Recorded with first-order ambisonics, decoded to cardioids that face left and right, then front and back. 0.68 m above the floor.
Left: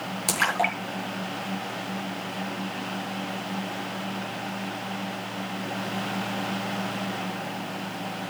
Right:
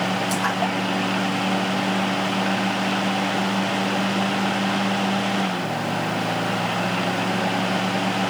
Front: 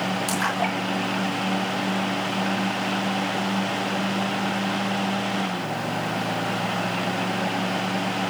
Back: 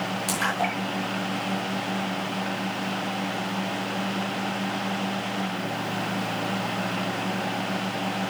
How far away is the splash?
About 7 m.